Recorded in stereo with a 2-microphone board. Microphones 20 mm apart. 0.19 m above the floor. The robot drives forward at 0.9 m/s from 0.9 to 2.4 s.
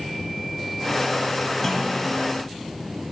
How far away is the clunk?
About 0.9 m.